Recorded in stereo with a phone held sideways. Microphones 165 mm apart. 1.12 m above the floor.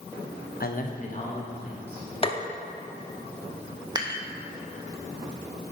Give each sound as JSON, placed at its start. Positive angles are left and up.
{"t": 0.6, "sound": "a man speaking", "side_deg": 60, "distance_m": 0.8}
{"t": 2.2, "sound": "tapping", "side_deg": 35, "distance_m": 0.6}
{"t": 4.0, "sound": "dishes clattering", "side_deg": -25, "distance_m": 0.9}